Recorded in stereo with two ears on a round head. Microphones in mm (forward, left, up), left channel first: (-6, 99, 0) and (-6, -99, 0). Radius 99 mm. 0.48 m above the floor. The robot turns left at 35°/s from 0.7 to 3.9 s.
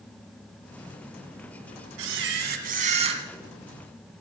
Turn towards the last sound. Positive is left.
turn(degrees=180)